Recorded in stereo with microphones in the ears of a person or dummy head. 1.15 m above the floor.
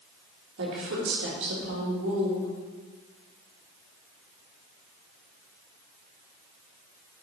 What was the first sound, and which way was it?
A woman speaking, 75° right (ahead or behind).